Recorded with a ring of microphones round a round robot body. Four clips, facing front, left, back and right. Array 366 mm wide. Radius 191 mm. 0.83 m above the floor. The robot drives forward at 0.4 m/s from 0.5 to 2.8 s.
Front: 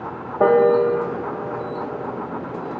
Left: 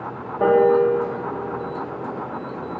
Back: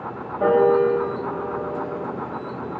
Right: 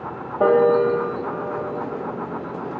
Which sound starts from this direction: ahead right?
A piano, at 0.4 s.